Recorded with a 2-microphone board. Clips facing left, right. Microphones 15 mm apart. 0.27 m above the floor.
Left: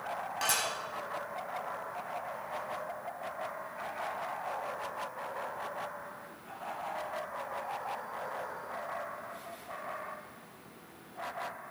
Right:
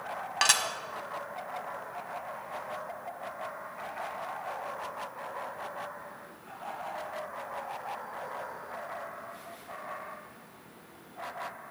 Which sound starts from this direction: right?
Dishes clattering, at 0.4 s.